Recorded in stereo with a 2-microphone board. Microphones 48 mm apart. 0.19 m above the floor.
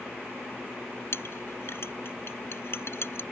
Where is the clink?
55° left (ahead or behind).